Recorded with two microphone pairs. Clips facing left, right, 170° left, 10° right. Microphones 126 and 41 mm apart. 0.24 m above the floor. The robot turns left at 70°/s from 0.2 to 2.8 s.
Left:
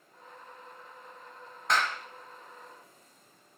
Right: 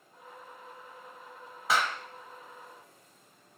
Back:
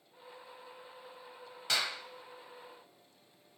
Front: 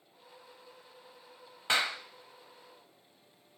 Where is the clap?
10° right, 0.8 m; by 2.0 s 30° right, 0.8 m.